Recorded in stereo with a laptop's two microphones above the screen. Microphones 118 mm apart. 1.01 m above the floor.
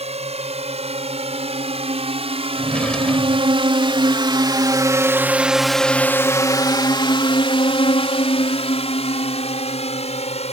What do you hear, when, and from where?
0.0 s a drone: 75° right (ahead or behind); by 10.5 s 75° left (ahead or behind)
2.6 s a drawer: 10° left (ahead or behind)